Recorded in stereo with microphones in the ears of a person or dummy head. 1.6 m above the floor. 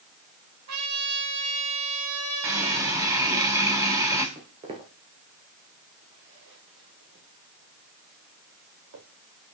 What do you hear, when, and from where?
0.7 s a trumpet: 85° right, 4 m
2.4 s a running tap: 15° right (ahead or behind), 3 m
4.3 s footsteps: 15° right (ahead or behind), 1.7 m; by 9.0 s 60° right (ahead or behind), 3.5 m